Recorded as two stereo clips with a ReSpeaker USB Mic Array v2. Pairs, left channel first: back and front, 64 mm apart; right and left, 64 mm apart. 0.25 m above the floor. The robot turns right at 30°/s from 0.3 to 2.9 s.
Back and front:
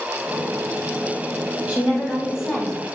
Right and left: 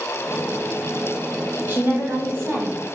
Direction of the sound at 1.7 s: 55° left.